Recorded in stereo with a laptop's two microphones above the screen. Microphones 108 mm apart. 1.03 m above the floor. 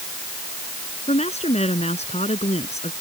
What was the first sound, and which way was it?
A woman speaking, 80° left.